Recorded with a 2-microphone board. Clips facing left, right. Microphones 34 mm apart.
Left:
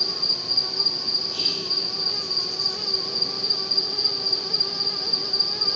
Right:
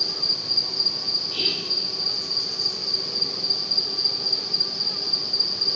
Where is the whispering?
30° right (ahead or behind), 3 m.